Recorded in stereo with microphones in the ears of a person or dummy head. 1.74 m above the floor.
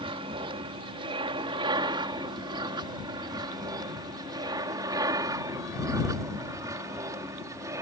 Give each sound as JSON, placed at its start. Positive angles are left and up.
{"t": 0.0, "sound": "an aircraft", "side_deg": -30}